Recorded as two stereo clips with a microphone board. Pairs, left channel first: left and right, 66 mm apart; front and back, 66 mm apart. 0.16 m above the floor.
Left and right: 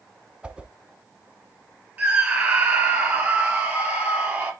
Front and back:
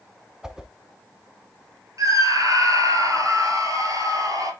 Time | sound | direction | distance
0.4 | a whoosh | 120° right | 0.9 m
2.0 | a scream | 155° right | 3.5 m